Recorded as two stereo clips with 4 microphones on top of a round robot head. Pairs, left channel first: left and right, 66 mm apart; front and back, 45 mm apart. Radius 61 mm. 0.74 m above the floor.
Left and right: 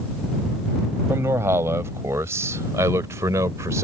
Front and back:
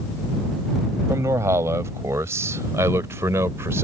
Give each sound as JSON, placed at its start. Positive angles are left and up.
{"t": 1.1, "sound": "a man speaking", "azimuth_deg": -150}